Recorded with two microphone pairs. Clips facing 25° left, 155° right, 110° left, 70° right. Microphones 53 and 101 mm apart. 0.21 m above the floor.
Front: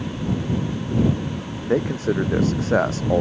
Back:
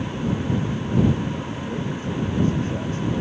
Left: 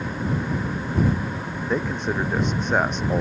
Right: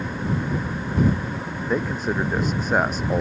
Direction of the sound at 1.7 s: 15° left.